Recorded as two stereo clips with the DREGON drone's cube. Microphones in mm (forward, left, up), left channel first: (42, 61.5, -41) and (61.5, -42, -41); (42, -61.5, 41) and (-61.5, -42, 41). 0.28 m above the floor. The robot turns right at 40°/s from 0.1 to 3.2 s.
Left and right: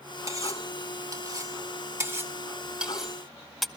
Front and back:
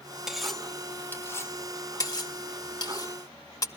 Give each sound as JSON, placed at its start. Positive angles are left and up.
{"t": 0.3, "sound": "cutlery clinking", "azimuth_deg": -105, "distance_m": 0.6}